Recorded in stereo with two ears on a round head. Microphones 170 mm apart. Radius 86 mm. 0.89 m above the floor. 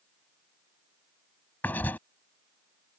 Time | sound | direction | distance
1.6 | writing | 10° left (ahead or behind) | ?